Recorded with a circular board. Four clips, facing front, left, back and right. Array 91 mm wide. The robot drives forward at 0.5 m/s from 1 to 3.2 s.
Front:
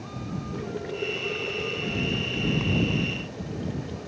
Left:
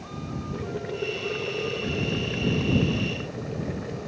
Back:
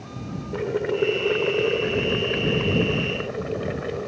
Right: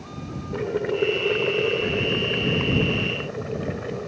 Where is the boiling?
140° right; by 4.1 s 155° right.